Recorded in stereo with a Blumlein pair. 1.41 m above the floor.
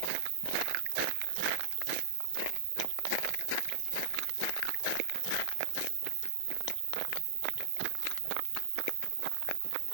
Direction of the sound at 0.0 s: 60° right.